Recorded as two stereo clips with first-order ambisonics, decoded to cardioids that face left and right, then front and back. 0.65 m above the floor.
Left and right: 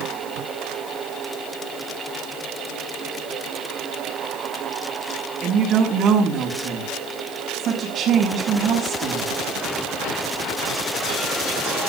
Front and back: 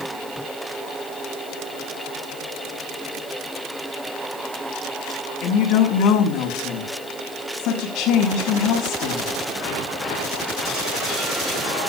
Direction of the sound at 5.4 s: 30° right.